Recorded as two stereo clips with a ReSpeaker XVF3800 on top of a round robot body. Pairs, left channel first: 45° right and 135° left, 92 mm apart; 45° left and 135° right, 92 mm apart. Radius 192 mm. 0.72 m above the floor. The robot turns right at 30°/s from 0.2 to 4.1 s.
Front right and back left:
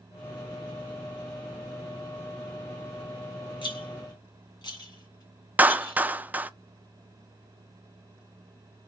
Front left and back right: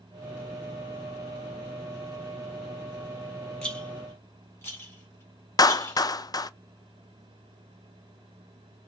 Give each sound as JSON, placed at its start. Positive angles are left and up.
{"t": 3.6, "sound": "a rattle", "azimuth_deg": -35, "distance_m": 2.0}
{"t": 5.6, "sound": "a clap", "azimuth_deg": 70, "distance_m": 0.5}